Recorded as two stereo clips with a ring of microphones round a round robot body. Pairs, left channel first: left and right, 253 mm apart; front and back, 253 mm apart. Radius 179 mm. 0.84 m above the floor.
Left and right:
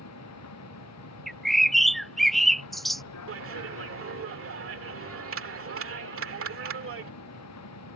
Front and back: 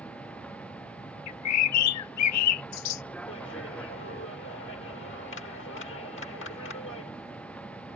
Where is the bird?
Straight ahead.